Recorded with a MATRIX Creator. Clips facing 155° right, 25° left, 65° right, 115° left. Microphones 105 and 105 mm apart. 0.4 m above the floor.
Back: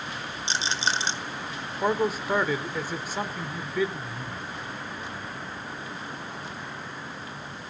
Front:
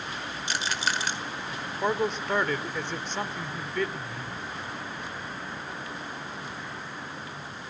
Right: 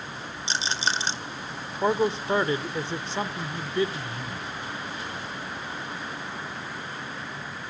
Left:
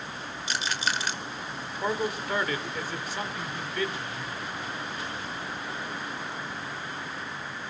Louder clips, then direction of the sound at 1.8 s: Back 2 dB, right 6 dB; 85° right.